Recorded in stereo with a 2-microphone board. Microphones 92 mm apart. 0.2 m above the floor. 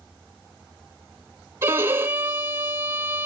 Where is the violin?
25° right (ahead or behind), 0.9 m.